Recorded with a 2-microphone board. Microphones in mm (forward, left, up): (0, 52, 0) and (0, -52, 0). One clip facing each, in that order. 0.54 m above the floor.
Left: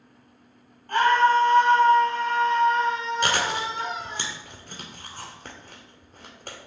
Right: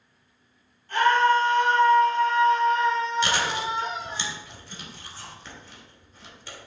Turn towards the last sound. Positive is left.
turn(degrees=50)  # may be behind; listen again after turning